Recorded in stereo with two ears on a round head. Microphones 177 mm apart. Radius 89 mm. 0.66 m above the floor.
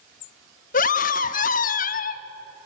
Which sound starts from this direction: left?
A scream, at 0.7 s.